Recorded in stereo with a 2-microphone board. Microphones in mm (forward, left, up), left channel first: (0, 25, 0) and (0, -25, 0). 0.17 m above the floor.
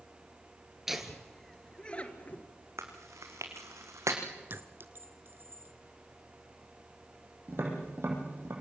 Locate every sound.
0.9 s laughter: 10° right (ahead or behind), 3 m; by 2.4 s 35° left (ahead or behind), 3 m
2.8 s chewing: 85° right, 4 m
4.5 s a clink: 50° right (ahead or behind), 1.4 m
7.5 s tapping: 55° right (ahead or behind), 7.5 m